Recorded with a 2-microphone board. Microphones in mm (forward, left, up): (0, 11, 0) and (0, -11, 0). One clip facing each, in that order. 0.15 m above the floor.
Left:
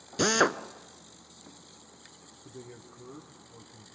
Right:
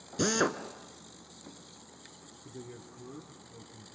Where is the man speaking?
10° left (ahead or behind), 2.5 m.